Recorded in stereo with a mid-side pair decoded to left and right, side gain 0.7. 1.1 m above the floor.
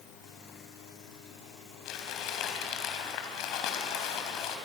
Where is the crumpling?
60° left, 4 m.